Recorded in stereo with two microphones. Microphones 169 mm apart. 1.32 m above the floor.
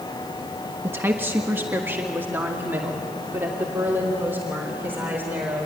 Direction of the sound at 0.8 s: 15° right (ahead or behind).